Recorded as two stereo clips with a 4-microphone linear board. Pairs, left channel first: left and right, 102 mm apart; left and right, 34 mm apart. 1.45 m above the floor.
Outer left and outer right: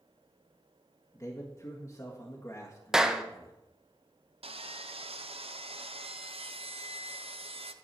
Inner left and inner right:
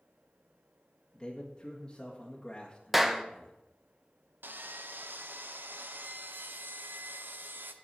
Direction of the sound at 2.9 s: 5° right (ahead or behind).